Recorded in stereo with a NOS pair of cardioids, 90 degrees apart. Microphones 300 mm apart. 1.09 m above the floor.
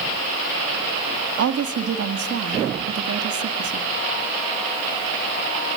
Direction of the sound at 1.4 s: 55° right.